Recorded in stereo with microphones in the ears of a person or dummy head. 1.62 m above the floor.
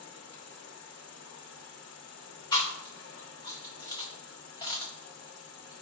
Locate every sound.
0.0 s an insect: 65° left (ahead or behind), 0.8 m
2.5 s chewing: 20° left (ahead or behind), 0.6 m